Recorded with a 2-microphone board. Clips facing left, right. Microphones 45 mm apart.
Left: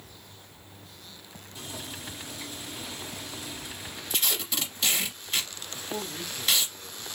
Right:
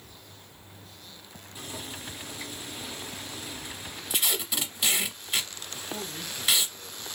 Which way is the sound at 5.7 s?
25° left (ahead or behind).